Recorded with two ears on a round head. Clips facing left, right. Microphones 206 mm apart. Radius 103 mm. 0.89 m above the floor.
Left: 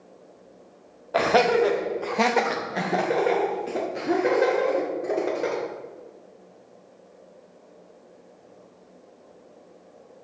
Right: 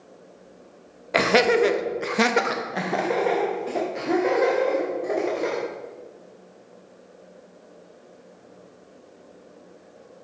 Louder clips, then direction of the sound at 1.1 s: Right 1 dB; 35° right (ahead or behind).